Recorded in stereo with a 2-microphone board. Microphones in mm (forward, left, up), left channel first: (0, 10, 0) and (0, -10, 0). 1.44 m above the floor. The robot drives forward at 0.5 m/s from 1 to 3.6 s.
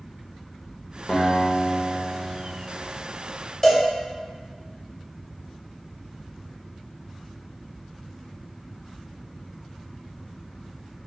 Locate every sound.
1.1 s a guitar: 30° left (ahead or behind), 0.7 m; by 2.7 s 15° left (ahead or behind), 1.2 m
3.6 s a cowbell: 20° left (ahead or behind), 0.6 m